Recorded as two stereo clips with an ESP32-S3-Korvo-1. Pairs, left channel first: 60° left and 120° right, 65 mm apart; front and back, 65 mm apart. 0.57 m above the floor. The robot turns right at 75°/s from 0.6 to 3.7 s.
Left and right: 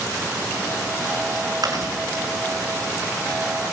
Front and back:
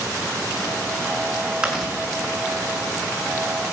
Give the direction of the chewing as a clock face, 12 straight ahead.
4 o'clock.